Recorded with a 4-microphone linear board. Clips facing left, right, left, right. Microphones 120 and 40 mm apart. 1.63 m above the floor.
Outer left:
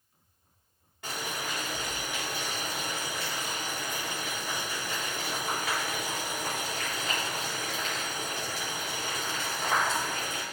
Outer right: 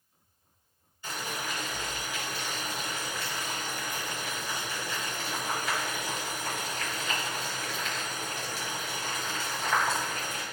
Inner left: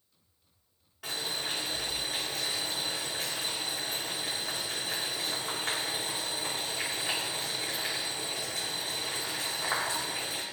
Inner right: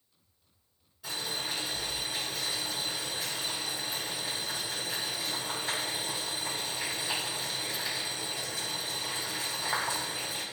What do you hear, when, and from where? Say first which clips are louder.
1.0 s boiling: even, inner left 1 dB; 80° left, 4.5 m